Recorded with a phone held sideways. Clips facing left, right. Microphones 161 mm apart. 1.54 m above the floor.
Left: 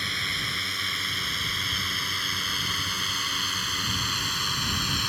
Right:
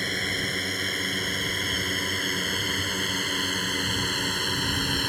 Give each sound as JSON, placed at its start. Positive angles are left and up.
{"t": 0.0, "sound": "a drone", "side_deg": -50}